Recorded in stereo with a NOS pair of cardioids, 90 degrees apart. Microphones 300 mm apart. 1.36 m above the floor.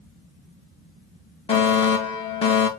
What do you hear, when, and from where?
1.5 s a fire alarm: 20° left, 3 m